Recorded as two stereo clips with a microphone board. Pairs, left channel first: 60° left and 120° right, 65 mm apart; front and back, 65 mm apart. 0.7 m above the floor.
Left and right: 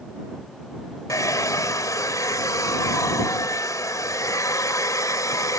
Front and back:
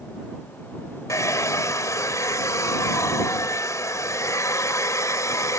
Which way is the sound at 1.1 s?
35° left.